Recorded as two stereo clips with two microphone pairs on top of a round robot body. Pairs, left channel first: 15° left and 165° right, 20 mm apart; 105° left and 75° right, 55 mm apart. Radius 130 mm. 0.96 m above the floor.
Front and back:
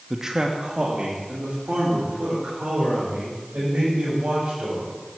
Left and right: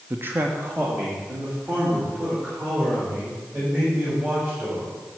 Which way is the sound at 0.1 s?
110° right.